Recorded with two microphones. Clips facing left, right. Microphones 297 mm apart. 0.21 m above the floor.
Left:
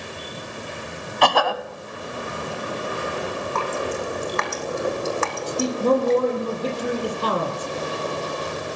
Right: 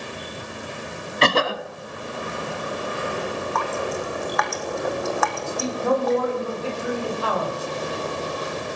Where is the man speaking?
40° left (ahead or behind), 6.5 m.